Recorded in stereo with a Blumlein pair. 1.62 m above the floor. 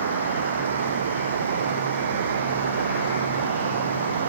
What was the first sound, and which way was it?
Running water, 65° right.